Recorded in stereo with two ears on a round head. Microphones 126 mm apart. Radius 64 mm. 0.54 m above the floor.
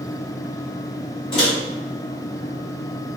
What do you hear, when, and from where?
1.3 s a microwave: 40° left (ahead or behind), 1.6 m